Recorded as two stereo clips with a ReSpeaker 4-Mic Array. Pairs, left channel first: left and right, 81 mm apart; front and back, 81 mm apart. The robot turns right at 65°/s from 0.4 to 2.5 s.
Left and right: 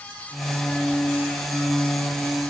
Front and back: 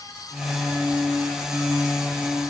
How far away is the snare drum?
No snare drum in this recording.